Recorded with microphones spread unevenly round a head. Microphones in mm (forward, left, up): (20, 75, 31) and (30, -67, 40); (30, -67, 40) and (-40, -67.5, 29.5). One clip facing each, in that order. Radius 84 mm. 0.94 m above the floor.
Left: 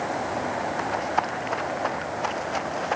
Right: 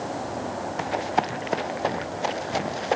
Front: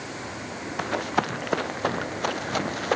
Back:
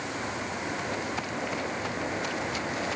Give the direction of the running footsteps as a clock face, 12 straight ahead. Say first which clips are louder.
Right 4 dB, front 6 dB; 1 o'clock.